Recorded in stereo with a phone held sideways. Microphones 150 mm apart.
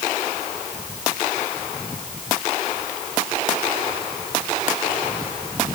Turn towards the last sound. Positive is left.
No sound to turn to.